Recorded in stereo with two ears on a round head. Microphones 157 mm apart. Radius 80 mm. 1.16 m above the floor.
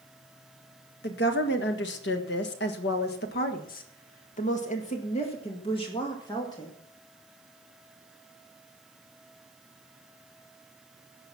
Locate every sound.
1.0 s a woman speaking: 60° left (ahead or behind), 1.8 m; by 6.8 s 25° left (ahead or behind), 2.5 m